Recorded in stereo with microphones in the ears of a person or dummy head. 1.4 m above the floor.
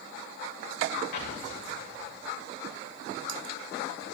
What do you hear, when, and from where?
1.1 s an explosion: 55° left (ahead or behind), 2.5 m